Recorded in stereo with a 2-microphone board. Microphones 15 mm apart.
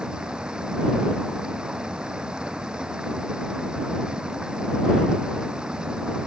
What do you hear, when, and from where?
0.0 s running water: 85° right